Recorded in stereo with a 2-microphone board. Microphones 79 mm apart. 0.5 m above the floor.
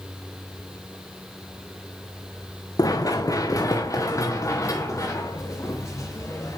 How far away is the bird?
I don't hear a bird.